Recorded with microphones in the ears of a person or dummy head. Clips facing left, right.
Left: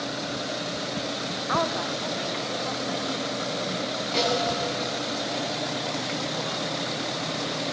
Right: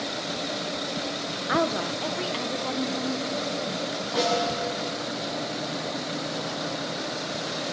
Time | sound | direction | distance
1.5 | a woman speaking | 30° right (ahead or behind) | 0.9 m
4.1 | a snare drum | 30° left (ahead or behind) | 8.5 m